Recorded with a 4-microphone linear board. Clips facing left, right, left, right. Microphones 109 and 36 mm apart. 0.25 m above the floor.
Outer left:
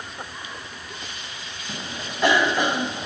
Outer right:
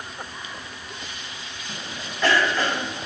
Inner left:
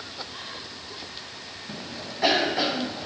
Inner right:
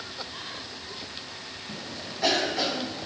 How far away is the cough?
About 1.4 m.